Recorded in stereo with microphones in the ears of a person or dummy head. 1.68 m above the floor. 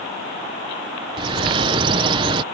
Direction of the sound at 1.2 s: 20° right (ahead or behind).